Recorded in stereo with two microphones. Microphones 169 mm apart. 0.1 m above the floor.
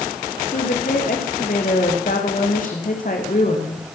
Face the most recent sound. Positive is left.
turn(degrees=55)  # may be behind; listen again after turning